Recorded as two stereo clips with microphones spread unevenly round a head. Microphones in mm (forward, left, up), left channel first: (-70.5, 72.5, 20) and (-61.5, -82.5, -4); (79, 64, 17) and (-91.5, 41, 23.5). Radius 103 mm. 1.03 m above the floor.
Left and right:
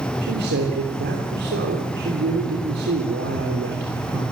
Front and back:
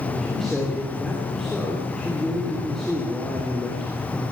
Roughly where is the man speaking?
Right.